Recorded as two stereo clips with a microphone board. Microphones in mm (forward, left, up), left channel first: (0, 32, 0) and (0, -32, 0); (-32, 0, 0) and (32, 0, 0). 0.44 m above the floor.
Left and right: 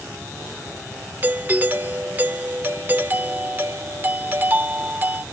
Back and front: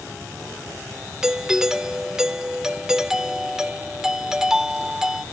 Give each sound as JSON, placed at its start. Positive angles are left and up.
{"t": 1.2, "sound": "a doorbell", "azimuth_deg": -75}